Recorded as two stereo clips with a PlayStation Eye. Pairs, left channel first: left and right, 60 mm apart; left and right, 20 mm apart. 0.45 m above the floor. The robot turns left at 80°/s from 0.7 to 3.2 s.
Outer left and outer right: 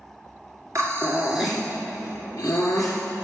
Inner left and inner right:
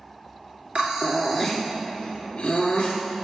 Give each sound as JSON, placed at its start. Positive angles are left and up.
{"t": 0.8, "sound": "breathing", "azimuth_deg": -120, "distance_m": 2.0}